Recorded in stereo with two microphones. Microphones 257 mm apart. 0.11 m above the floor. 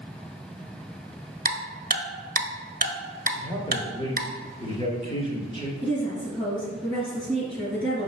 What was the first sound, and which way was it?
Ticking, 35° right (ahead or behind).